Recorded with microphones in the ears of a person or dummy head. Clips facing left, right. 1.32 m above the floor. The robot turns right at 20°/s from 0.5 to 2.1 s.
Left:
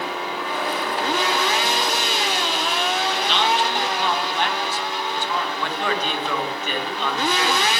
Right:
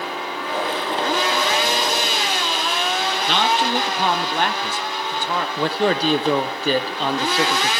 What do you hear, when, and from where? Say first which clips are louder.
3.3 s a man speaking: right 3 dB; 40° right (ahead or behind), 0.6 m
5.6 s a man speaking: right 6 dB; 30° right (ahead or behind), 0.7 m